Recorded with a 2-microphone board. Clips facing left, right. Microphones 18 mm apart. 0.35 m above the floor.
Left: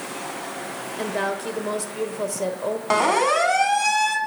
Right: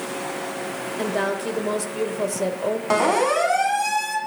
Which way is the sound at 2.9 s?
10° left (ahead or behind).